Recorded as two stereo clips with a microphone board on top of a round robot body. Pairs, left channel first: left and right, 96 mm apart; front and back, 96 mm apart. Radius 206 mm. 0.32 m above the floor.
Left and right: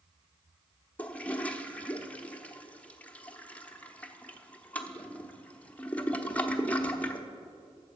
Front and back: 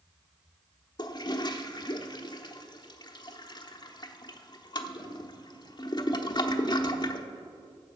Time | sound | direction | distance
1.0 | a toilet flushing | 20° left | 1.1 m